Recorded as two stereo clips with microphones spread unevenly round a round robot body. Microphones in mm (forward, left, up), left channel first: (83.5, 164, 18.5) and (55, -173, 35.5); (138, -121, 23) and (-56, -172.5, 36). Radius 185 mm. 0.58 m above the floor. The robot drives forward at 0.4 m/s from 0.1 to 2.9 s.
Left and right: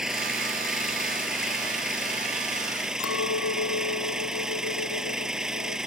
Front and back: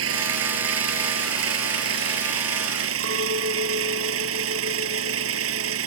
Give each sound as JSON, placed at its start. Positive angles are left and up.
{"t": 0.0, "sound": "an engine running", "azimuth_deg": 175}
{"t": 3.0, "sound": "a clink", "azimuth_deg": 140}